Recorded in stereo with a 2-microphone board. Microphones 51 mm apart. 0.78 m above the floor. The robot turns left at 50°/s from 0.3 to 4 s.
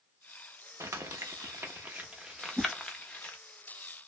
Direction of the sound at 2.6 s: 35° right (ahead or behind).